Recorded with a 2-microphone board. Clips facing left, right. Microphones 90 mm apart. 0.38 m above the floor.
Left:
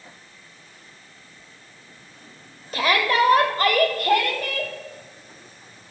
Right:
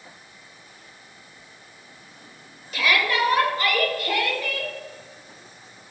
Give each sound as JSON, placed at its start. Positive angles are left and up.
{"t": 2.7, "sound": "a shout", "side_deg": 40, "distance_m": 1.1}